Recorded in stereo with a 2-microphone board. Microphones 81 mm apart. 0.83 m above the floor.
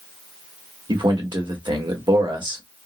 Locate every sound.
0.9 s a man speaking: 75° right (ahead or behind), 1.3 m